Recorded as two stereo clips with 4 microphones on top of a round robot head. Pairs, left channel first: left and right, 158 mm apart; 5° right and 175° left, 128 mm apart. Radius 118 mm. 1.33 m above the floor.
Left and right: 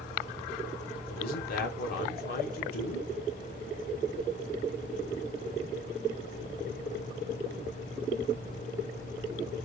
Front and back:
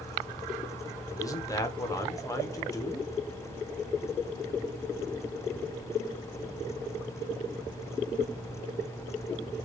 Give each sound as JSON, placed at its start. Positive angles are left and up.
{"t": 1.1, "sound": "a man speaking", "azimuth_deg": 60, "distance_m": 1.1}